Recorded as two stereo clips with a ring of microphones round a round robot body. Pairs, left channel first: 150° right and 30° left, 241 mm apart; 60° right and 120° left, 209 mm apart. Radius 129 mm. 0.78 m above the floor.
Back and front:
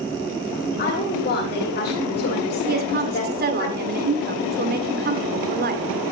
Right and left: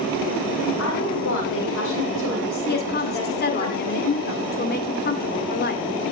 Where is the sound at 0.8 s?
100° right, 8.5 m.